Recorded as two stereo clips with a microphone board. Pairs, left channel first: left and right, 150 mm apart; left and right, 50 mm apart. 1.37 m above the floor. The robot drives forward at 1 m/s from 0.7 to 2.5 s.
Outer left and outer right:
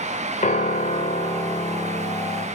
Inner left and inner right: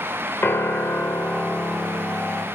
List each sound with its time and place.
0.4 s a piano: 55° left (ahead or behind), 1.6 m; by 2.5 s 35° left (ahead or behind), 2.5 m